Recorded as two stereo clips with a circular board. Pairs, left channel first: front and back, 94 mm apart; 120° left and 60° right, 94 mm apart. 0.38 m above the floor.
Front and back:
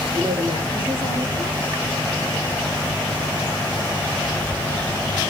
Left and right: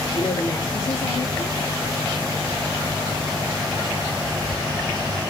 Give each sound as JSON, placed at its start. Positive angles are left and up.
{"t": 0.1, "sound": "a woman speaking", "azimuth_deg": 170, "distance_m": 5.0}